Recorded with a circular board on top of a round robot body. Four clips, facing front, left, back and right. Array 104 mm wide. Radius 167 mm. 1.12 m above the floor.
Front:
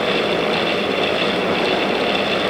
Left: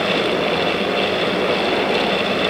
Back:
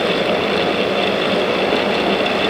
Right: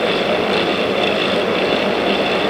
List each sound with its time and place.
Only background noise.